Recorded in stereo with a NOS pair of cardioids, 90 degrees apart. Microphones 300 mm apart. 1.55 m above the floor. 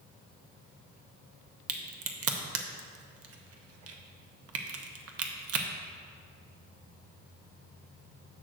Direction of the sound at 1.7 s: 55° right.